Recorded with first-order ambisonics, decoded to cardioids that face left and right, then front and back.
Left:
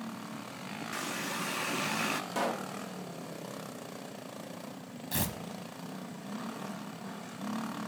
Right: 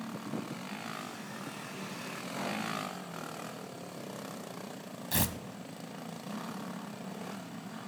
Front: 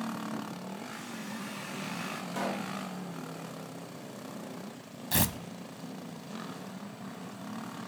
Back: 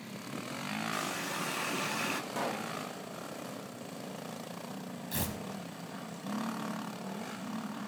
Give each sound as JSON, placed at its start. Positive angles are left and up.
{"t": 0.9, "sound": "a running tap", "azimuth_deg": 125, "distance_m": 0.9}
{"t": 2.3, "sound": "a pop", "azimuth_deg": 85, "distance_m": 1.1}
{"t": 5.1, "sound": "tearing paper", "azimuth_deg": -20, "distance_m": 0.8}